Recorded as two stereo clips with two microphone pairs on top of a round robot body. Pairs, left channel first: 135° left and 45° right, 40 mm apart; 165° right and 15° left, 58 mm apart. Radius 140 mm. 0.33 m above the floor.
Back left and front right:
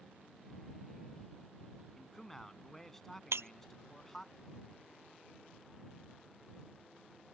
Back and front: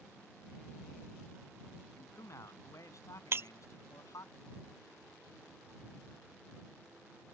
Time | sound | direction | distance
2.0 | a man speaking | 145° right | ?
3.3 | breaking glass | 30° right | ?